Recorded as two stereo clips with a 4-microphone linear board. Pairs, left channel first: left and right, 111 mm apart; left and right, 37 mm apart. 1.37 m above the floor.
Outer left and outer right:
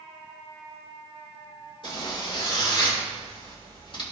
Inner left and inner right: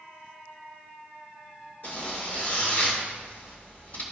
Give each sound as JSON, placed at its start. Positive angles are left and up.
{"t": 1.8, "sound": "a zipper", "side_deg": 45, "distance_m": 2.0}